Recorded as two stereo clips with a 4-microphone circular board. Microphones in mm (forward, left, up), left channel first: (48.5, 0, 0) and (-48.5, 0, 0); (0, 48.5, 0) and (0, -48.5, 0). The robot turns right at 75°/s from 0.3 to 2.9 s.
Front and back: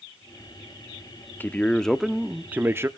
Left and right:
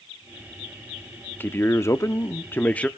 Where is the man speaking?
45° left, 0.7 m; by 2.9 s 155° left, 0.7 m.